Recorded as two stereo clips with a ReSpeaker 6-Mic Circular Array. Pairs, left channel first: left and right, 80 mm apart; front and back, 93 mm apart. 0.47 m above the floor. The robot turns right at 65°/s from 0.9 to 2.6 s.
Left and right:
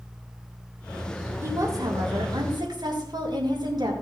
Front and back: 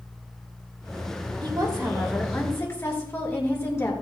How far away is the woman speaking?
About 6.5 m.